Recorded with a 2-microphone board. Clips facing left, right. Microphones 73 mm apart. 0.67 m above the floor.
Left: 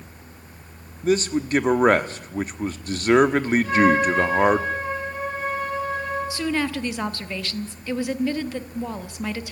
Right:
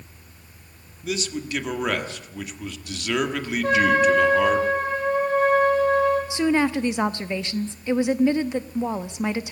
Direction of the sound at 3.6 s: 55° right (ahead or behind).